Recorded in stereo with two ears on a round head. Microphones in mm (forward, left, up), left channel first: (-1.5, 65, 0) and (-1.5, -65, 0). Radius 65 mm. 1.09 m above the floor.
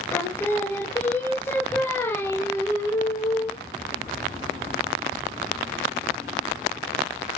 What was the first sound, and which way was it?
Singing, 15° left (ahead or behind).